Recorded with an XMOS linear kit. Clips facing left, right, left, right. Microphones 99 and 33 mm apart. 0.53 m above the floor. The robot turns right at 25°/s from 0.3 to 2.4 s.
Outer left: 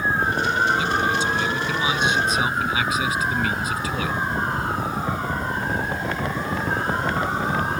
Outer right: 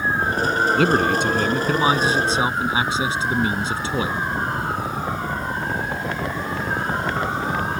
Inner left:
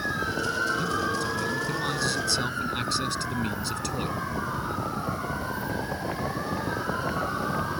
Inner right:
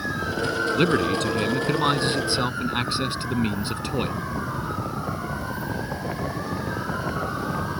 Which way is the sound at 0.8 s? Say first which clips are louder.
Outer right 4 dB, inner right 6 dB; 70° right.